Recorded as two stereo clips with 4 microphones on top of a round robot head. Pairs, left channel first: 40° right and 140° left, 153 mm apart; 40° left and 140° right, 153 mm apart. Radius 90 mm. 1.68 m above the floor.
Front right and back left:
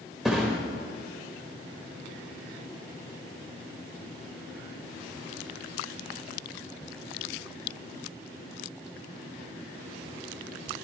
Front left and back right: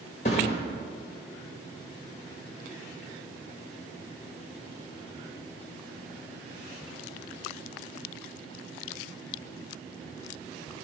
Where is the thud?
50° left, 1.1 m.